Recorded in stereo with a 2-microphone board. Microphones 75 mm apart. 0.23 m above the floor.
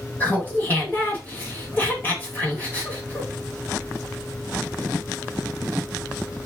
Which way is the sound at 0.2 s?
25° left (ahead or behind).